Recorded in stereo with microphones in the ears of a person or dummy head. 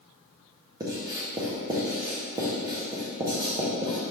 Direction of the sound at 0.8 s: 20° right (ahead or behind).